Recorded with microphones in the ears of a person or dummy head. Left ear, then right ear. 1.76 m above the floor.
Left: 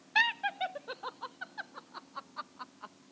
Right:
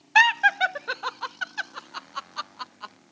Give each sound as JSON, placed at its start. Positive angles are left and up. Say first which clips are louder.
{"t": 0.1, "sound": "laughter", "louder": "right 11 dB", "side_deg": -45}